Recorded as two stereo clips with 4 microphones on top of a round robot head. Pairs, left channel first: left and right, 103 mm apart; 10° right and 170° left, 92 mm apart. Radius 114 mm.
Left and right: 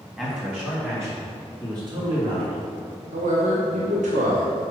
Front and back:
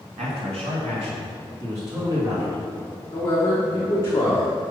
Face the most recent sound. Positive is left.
turn(degrees=-80)